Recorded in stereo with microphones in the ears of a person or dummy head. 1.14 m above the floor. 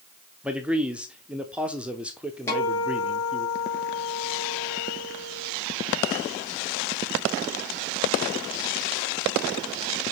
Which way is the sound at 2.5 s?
15° left (ahead or behind).